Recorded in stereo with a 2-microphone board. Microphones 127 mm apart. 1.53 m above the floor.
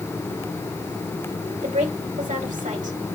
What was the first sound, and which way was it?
A woman speaking, 80° right.